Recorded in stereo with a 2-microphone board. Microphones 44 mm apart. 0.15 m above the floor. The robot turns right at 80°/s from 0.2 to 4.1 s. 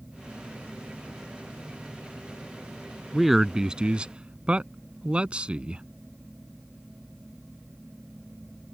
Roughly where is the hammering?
No hammering in this recording.